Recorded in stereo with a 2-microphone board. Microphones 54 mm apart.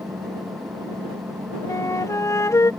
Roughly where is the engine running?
Right.